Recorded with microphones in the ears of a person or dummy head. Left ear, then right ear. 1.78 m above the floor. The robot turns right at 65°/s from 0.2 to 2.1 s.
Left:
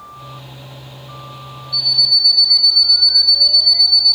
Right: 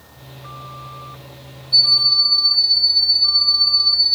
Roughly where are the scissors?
No scissors in this recording.